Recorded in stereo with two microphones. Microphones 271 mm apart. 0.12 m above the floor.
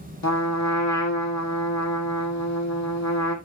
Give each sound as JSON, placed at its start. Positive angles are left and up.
{"t": 0.2, "sound": "a trumpet", "side_deg": 80, "distance_m": 1.4}